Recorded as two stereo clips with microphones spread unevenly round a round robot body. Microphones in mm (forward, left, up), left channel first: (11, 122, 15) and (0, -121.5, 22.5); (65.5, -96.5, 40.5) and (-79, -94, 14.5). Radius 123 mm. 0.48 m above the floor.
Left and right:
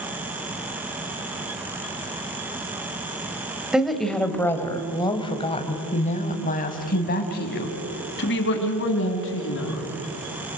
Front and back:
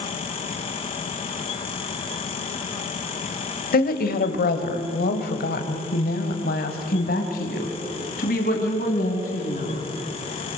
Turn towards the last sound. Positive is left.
turn(degrees=50)